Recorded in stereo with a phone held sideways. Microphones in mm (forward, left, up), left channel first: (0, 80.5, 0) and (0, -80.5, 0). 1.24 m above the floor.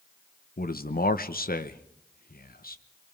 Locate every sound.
0.6 s a man speaking: 70° left (ahead or behind), 1.1 m